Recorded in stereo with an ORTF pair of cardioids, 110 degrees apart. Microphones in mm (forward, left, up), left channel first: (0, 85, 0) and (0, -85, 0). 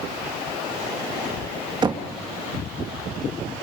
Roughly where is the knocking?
Ahead right.